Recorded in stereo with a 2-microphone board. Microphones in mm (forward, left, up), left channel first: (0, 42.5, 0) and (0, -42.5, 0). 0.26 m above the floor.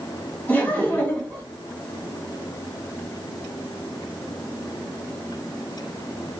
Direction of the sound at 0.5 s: 20° left (ahead or behind).